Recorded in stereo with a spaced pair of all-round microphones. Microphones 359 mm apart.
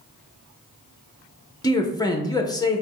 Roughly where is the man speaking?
Centre.